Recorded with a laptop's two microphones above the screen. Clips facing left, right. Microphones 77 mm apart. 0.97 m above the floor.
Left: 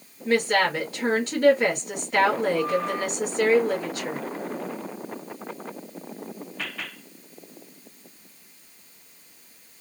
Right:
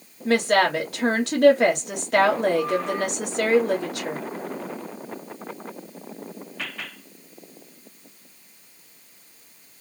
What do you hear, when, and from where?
0.2 s a woman speaking: 65° right (ahead or behind), 2 m